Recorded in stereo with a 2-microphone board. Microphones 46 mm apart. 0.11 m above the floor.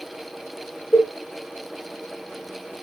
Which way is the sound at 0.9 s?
60° left (ahead or behind).